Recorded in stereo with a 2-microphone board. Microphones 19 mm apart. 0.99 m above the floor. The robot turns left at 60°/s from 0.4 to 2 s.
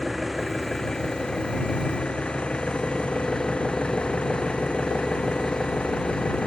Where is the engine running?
Straight behind; by 6.5 s 85° left.